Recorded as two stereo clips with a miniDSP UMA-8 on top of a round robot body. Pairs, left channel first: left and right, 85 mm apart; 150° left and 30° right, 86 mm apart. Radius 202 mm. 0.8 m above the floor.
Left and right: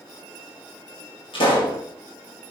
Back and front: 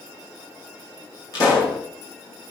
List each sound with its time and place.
1.3 s a pop: 105° left, 5 m